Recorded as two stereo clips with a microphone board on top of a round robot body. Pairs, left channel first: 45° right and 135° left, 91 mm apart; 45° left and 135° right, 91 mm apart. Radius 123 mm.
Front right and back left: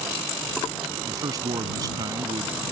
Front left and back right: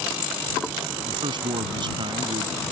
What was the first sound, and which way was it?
A man speaking, 175° right.